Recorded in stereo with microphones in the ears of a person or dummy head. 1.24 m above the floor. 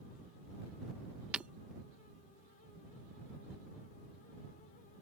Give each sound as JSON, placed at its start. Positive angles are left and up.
{"t": 1.3, "sound": "breaking glass", "side_deg": -5}